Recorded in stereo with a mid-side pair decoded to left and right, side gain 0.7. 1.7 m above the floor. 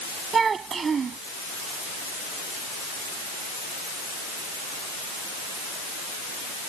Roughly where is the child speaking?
Ahead right.